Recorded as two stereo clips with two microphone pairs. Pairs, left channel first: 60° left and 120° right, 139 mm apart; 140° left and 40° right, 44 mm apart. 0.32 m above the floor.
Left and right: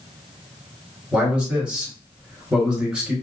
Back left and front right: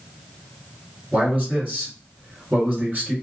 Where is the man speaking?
45° right, 1.7 m.